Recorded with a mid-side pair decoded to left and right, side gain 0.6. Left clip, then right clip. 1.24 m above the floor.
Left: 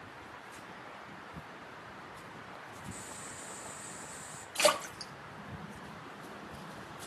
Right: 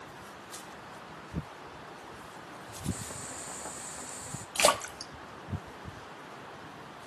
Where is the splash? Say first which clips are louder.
Right 2 dB; 35° right, 1.1 m.